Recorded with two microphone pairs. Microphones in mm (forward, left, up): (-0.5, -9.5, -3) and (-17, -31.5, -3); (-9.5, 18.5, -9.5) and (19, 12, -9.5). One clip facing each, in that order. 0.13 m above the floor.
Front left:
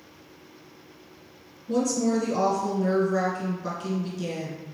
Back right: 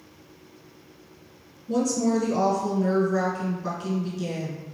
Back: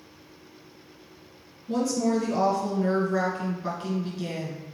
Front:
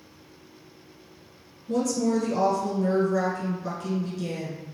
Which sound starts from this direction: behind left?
A woman speaking, at 1.7 s.